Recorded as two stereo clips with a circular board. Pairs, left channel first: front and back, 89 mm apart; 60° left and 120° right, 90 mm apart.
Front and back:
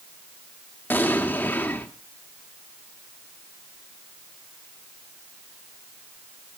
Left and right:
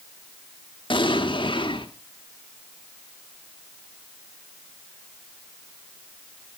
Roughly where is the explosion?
Ahead left.